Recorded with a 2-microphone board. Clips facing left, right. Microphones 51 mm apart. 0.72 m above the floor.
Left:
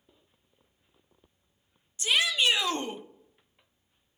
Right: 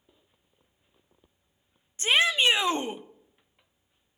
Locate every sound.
2.0 s a shout: 35° right (ahead or behind), 0.6 m; by 3.0 s 15° right (ahead or behind), 0.9 m